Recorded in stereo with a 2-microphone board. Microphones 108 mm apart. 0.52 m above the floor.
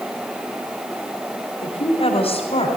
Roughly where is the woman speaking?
Left.